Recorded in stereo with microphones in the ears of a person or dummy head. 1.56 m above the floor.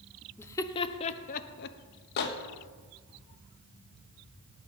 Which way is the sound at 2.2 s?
60° left (ahead or behind).